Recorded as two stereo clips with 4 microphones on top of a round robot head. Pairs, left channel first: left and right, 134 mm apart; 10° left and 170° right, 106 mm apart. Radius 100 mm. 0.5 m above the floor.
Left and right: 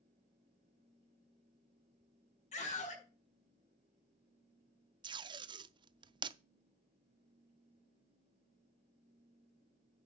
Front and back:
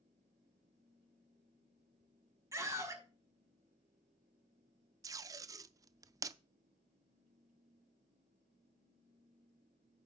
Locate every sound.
2.5 s a scream: 130° left, 5 m
5.0 s tape being pulled: 130° right, 0.5 m